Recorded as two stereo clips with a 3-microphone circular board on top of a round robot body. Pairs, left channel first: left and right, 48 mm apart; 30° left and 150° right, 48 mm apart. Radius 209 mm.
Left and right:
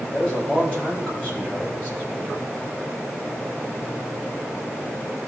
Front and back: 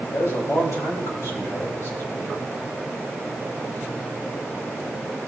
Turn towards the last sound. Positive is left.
turn(degrees=30)